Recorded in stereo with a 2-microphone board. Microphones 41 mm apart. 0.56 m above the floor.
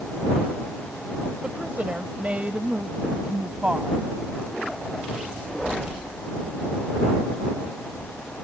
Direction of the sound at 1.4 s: 45° right (ahead or behind).